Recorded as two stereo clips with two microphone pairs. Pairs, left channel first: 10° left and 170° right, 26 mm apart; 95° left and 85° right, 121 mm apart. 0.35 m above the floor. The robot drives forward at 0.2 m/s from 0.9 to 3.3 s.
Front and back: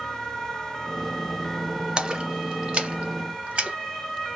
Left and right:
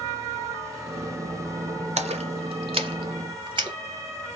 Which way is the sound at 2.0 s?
115° right.